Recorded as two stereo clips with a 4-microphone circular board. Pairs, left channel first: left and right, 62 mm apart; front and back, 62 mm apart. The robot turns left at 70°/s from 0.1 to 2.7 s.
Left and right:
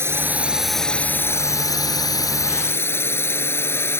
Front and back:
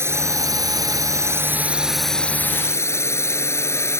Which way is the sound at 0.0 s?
135° right.